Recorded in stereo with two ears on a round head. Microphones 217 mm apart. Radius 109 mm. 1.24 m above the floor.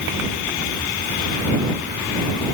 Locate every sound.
Only background noise.